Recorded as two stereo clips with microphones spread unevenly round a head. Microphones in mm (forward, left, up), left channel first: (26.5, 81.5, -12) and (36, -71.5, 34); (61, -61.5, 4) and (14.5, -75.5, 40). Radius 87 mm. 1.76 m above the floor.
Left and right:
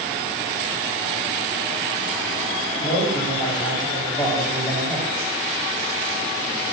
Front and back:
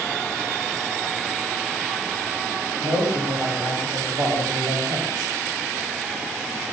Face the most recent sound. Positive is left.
turn(degrees=165)